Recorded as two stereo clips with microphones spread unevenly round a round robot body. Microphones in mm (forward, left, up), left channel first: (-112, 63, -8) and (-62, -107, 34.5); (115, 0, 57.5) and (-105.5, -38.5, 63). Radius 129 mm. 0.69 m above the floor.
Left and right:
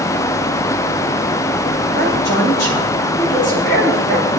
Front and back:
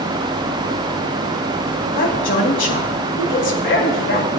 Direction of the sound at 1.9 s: 50° left.